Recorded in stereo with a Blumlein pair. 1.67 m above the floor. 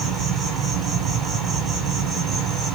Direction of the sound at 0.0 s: 20° right.